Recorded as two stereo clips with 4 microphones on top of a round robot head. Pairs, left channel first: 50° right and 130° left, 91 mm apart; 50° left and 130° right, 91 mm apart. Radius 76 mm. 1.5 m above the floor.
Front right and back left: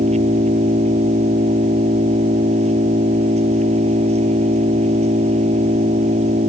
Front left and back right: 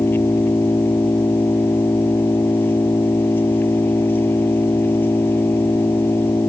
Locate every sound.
0.0 s an engine running: 120° left